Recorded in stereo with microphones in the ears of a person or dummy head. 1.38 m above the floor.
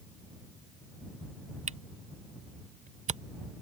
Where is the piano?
I don't hear a piano.